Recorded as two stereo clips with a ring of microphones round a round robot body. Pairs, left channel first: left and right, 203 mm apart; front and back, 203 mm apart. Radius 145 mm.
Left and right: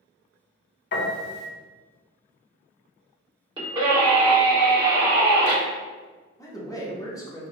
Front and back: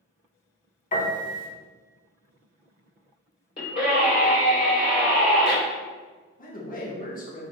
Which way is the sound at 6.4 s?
20° left.